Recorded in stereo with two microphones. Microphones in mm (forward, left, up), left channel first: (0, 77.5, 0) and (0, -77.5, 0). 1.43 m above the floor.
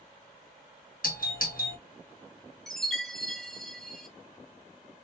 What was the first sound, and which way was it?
A doorbell, 65° left (ahead or behind).